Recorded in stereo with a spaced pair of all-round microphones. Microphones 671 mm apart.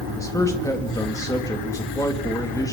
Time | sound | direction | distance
0.2 | a man speaking | 5° left (ahead or behind) | 2 m